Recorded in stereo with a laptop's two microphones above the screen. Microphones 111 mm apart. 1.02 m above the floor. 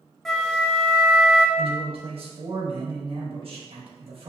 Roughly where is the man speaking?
Right.